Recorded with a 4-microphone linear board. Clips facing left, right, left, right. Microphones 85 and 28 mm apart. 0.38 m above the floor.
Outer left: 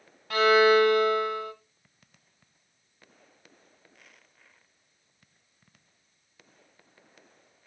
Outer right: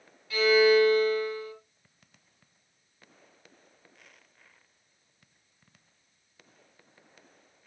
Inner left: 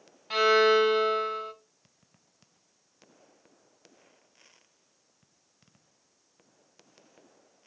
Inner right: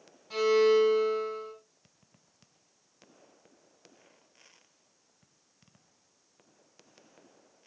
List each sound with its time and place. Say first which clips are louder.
0.3 s a violin: outer left 1 dB, inner left 2 dB; 65° left (ahead or behind), 1.4 m